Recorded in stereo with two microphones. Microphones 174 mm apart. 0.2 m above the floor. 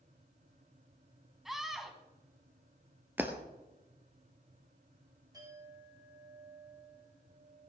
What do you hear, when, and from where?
1.4 s a scream: centre (ahead or behind), 1.6 m
3.2 s breaking glass: 10° right (ahead or behind), 1.8 m
5.3 s a clink: 20° right (ahead or behind), 7 m